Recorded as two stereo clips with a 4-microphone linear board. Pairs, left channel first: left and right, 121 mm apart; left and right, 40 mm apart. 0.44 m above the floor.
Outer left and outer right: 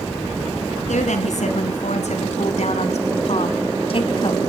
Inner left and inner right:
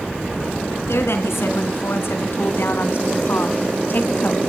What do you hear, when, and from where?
0.9 s a woman speaking: 80° left, 5 m; by 4.4 s 40° left (ahead or behind), 2.5 m